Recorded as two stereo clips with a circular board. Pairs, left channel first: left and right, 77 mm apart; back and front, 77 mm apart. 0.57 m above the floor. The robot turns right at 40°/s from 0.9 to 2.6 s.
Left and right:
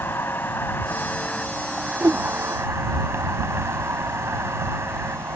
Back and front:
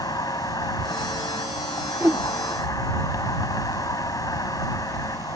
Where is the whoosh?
60° right; by 2.2 s 50° right.